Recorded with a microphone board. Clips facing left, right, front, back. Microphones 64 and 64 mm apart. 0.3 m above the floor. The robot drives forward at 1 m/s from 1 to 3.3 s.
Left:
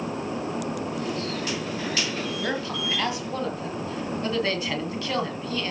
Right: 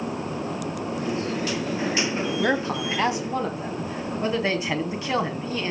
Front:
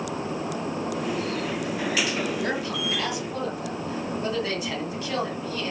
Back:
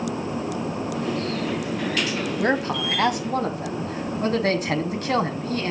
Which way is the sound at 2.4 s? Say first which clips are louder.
Right 7 dB, back 5 dB; 140° right.